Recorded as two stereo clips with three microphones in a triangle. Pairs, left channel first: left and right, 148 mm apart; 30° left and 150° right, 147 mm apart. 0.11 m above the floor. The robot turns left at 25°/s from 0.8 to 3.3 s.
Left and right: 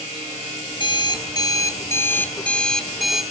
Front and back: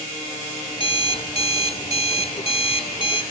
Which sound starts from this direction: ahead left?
An alarm clock, at 0.7 s.